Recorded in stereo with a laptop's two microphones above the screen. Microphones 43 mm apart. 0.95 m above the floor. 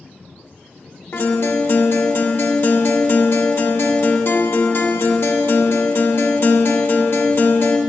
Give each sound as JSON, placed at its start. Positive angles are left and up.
{"t": 1.1, "sound": "a guitar", "side_deg": 60, "distance_m": 1.0}